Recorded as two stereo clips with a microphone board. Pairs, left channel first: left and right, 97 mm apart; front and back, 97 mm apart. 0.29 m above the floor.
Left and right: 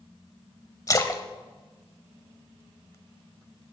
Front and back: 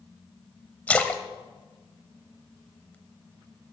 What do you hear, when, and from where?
0.9 s a splash: 65° left, 0.9 m